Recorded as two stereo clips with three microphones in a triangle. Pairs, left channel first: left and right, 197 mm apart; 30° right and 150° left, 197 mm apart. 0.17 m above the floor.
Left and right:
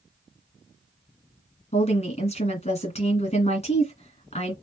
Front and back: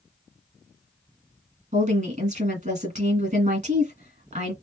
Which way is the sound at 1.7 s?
130° left.